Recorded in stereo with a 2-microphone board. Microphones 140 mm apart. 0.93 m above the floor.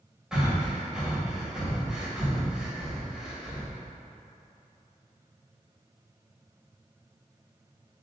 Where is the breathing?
5° right (ahead or behind), 1.8 m.